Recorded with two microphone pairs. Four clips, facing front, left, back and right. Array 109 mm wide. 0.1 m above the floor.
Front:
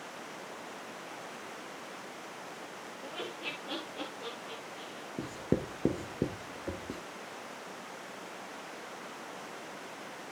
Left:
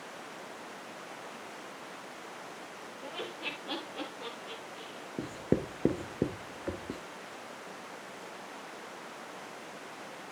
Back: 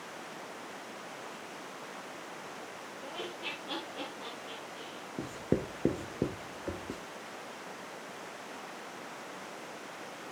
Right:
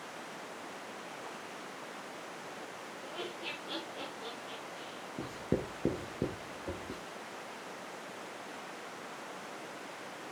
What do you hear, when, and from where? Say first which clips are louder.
3.0 s laughter: left 2 dB, even; 95° left, 9.5 m; by 5.1 s 110° left, 8 m
5.2 s writing: left 4 dB, even; 110° left, 1.2 m